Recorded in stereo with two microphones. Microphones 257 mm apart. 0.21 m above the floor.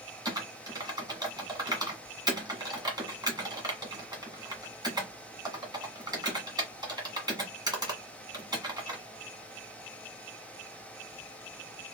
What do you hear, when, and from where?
0.2 s typing on a keyboard: 15° right (ahead or behind), 1.4 m